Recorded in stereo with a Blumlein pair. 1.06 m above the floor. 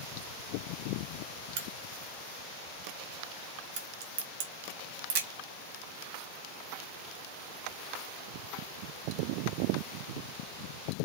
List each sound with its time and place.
1.6 s a crack: 55° right, 1.5 m